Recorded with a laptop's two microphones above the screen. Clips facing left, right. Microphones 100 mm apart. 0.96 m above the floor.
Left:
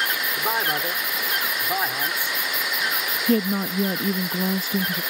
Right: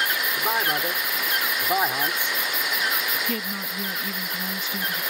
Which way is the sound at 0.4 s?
Centre (ahead or behind).